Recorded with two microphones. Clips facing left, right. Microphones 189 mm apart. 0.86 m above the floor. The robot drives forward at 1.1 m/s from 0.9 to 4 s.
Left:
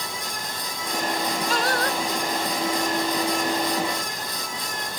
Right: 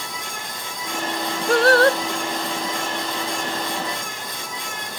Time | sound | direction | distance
1.5 | singing | 55° right (ahead or behind) | ?